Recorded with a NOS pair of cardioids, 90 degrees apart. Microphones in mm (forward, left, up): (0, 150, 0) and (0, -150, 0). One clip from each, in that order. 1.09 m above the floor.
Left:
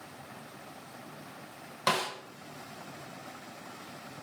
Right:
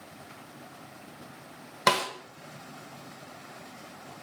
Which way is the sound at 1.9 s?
35° right.